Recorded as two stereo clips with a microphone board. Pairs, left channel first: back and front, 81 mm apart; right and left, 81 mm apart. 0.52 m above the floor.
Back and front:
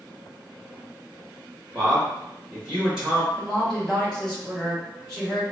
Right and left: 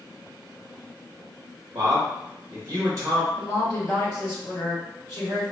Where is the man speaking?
85° left, 1.0 m.